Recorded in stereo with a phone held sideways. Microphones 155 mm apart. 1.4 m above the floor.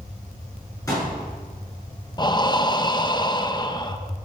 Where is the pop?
25° left (ahead or behind), 7 m.